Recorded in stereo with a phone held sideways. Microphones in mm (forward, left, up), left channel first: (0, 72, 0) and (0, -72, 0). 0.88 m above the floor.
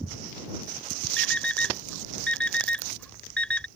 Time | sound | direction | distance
1.2 | an alarm clock | 10° left (ahead or behind) | ?